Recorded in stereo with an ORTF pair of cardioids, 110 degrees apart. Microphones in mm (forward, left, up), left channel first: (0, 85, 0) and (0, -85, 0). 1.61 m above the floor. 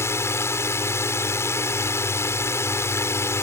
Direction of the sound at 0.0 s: 15° left.